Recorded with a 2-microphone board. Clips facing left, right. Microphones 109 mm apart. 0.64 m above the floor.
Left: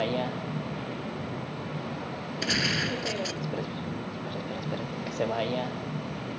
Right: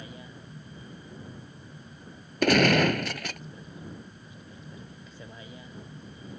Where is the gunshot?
65° right (ahead or behind).